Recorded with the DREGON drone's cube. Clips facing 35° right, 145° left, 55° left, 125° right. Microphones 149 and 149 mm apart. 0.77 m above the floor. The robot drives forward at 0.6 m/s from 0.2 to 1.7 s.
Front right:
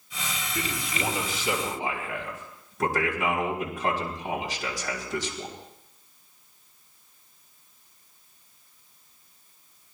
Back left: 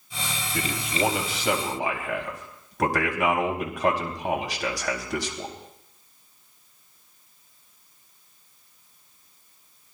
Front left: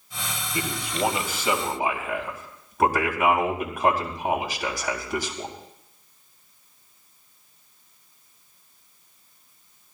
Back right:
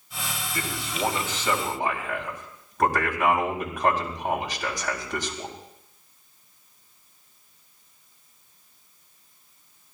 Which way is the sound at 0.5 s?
130° left.